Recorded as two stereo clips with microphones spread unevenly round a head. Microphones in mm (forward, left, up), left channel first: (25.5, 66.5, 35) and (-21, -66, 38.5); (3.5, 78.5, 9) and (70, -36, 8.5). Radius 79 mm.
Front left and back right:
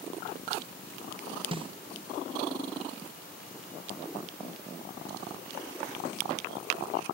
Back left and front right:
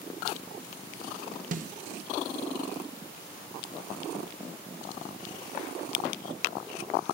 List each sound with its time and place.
1.5 s a snare drum: 60° right, 1.2 m